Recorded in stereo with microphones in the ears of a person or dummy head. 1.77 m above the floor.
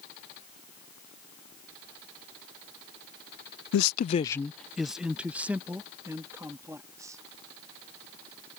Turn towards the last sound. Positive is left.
turn(degrees=-15)  # may be behind; listen again after turning